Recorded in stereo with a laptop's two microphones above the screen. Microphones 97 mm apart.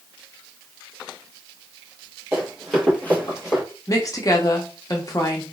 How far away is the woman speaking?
About 0.8 m.